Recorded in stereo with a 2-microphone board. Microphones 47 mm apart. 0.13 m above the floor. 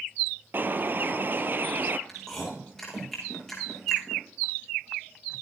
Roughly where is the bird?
Right.